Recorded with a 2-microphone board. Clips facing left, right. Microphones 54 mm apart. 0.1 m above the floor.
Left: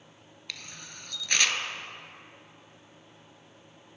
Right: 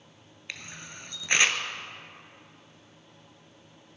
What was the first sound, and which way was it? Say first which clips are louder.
A camera shutter: right 3 dB; 25° right (ahead or behind).